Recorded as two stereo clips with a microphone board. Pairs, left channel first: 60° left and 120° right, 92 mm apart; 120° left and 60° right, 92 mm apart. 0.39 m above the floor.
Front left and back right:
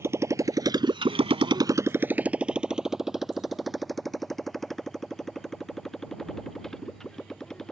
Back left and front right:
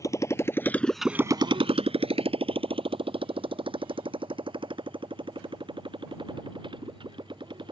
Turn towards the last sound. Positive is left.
turn(degrees=-25)